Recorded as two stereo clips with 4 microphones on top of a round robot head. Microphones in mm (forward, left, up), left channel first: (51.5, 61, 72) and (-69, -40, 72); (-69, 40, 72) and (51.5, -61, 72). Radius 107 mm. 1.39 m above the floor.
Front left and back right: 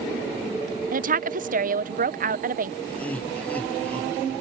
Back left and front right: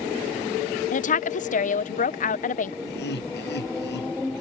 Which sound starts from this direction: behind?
A woman speaking, at 0.9 s.